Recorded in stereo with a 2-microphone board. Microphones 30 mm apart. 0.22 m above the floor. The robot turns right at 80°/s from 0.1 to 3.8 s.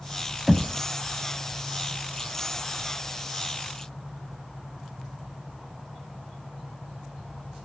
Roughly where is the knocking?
Centre.